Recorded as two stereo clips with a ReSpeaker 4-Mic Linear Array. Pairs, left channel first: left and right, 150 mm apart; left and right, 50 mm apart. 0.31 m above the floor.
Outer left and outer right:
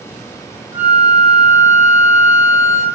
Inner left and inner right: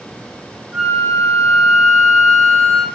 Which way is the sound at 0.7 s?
10° right (ahead or behind).